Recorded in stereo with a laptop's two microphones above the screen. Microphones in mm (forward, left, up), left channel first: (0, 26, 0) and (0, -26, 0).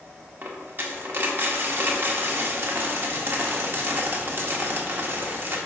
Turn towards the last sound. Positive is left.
turn(degrees=-45)  # may be behind; listen again after turning